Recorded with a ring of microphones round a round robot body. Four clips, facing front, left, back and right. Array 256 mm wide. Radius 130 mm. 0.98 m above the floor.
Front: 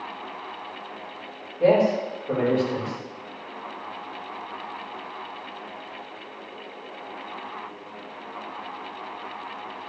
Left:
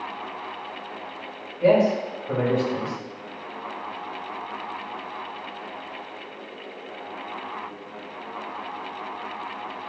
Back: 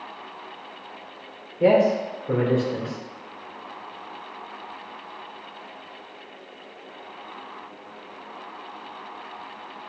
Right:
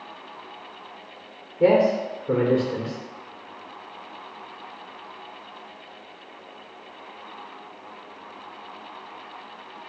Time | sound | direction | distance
1.6 | a man speaking | 105° right | 3.5 m